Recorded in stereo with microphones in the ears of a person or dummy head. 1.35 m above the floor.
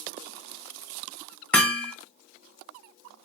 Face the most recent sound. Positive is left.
turn(degrees=10)  # may be behind; listen again after turning